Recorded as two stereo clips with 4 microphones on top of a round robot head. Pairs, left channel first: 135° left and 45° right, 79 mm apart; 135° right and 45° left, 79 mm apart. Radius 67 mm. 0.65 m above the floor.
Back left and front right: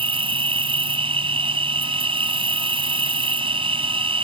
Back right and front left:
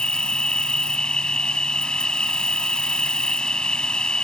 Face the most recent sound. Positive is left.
turn(degrees=-55)